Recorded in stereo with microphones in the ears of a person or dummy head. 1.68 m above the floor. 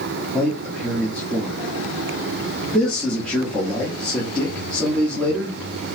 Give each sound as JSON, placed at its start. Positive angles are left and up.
{"t": 0.3, "sound": "a man speaking", "side_deg": 5, "distance_m": 1.1}